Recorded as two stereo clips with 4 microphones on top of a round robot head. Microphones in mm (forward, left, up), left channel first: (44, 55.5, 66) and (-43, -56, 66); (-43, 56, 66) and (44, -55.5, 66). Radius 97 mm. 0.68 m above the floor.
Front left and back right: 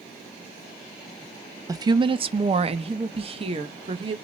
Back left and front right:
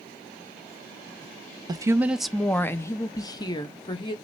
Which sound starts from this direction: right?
A woman speaking, at 1.7 s.